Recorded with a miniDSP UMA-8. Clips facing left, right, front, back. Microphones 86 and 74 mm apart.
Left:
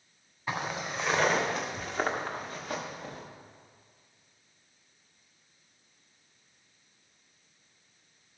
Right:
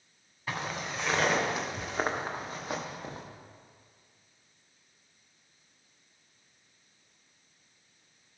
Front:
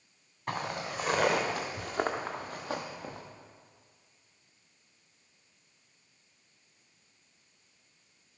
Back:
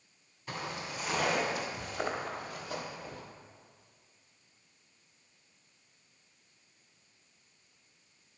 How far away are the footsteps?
About 1.9 m.